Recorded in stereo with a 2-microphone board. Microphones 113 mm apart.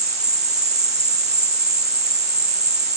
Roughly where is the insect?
Right.